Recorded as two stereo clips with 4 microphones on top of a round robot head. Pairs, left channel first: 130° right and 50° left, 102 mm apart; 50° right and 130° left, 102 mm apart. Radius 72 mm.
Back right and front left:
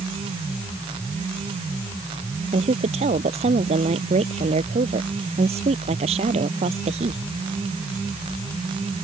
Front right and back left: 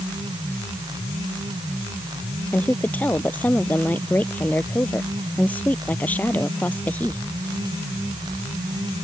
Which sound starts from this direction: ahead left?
A woman speaking, at 2.5 s.